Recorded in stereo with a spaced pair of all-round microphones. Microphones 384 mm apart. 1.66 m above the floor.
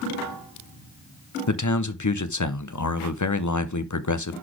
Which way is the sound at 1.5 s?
45° left (ahead or behind).